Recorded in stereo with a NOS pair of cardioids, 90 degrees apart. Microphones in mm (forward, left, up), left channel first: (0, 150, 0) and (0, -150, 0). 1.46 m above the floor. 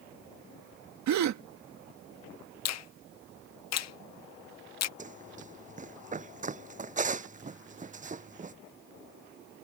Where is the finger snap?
60° left.